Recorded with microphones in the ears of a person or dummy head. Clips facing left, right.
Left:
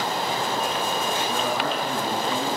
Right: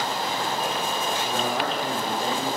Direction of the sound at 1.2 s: 45° right (ahead or behind).